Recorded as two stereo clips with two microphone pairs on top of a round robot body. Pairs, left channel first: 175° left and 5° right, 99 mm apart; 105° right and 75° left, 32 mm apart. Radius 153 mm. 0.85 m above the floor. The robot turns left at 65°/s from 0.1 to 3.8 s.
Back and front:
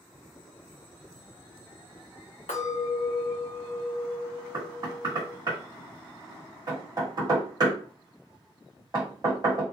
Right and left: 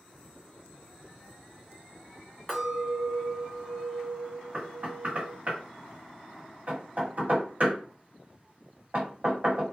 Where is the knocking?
40° left, 1.9 m.